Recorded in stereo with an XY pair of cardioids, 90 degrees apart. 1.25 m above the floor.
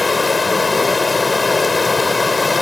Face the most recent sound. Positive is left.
turn(degrees=25)